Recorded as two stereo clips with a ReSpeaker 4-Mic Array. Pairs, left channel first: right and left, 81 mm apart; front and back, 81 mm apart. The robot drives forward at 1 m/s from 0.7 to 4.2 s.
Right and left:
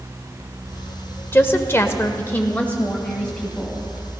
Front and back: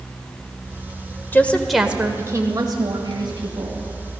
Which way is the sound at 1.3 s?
45° right.